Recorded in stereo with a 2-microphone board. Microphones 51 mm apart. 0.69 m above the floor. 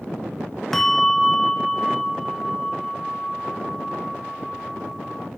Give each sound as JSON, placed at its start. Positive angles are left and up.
{"t": 0.7, "sound": "a bell", "side_deg": 5, "distance_m": 0.6}